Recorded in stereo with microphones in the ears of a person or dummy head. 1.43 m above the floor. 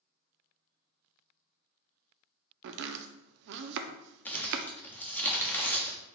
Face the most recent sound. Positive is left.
turn(degrees=10)  # may be behind; listen again after turning